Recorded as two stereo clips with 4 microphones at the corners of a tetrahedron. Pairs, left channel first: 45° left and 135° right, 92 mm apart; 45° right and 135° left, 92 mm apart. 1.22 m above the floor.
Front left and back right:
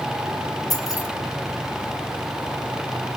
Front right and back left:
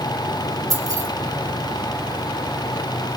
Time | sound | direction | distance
0.7 | keys jangling | 90° left | 2.5 m